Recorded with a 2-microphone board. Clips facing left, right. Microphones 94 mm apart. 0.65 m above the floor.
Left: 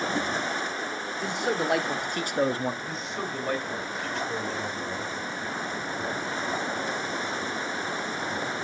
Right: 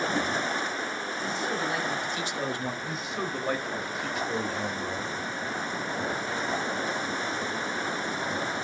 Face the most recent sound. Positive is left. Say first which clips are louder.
# even
turn(degrees=-5)  # may be behind; listen again after turning